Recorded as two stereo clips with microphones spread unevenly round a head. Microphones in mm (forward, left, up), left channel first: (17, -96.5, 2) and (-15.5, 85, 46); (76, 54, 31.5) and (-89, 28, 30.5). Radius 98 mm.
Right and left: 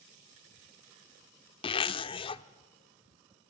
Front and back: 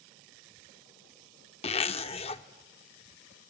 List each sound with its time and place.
1.6 s a zipper: 15° right, 0.6 m